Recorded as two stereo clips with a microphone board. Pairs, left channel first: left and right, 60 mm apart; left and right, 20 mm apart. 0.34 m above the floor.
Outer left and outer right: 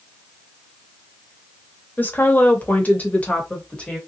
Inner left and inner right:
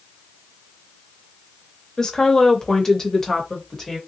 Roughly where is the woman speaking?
Left.